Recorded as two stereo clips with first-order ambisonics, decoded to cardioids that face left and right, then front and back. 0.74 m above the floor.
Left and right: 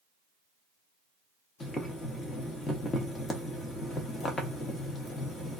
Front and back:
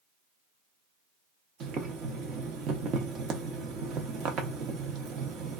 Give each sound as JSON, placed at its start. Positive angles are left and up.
{"t": 1.6, "sound": "boiling", "azimuth_deg": 155, "distance_m": 0.8}